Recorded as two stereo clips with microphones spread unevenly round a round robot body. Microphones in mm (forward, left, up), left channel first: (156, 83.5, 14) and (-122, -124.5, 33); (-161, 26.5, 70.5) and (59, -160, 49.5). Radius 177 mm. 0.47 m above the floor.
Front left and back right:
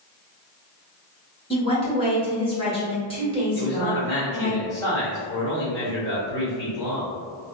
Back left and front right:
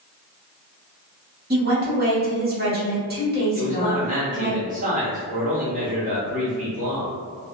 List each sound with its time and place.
1.5 s a woman speaking: 25° right, 1.3 m
3.5 s a man speaking: 30° right, 1.5 m